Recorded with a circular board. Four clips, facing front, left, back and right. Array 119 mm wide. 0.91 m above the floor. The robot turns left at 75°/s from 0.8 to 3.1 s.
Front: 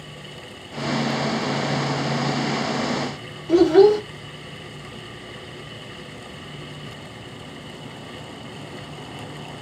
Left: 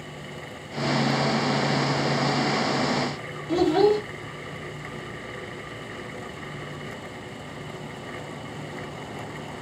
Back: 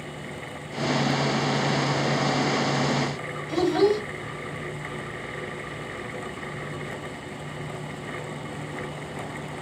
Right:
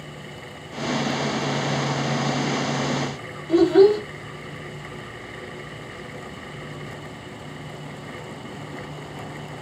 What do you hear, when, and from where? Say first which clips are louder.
3.5 s a child speaking: right 5 dB, front 8 dB; straight ahead, 1.3 m